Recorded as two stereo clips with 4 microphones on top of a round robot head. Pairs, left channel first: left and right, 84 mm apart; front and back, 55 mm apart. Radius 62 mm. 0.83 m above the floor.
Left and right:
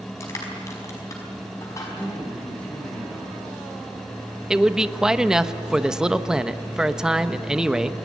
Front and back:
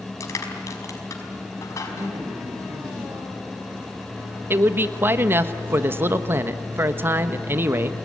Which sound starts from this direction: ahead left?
Crushing, at 0.2 s.